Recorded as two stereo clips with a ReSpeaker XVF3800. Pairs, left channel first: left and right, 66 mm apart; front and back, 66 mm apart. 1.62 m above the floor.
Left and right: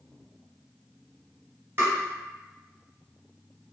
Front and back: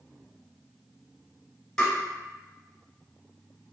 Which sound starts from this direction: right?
Tapping, at 1.8 s.